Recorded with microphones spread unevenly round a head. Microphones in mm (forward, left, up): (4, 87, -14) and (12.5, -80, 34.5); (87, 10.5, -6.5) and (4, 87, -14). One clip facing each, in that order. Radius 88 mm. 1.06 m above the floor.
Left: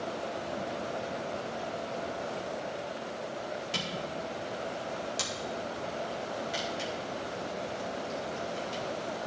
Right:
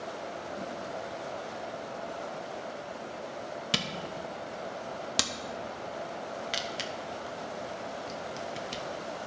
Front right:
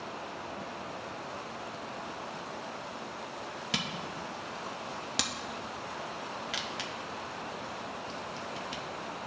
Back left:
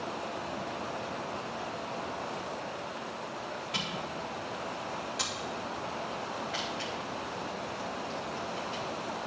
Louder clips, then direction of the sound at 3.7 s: Even, back left 1 dB; 75° right.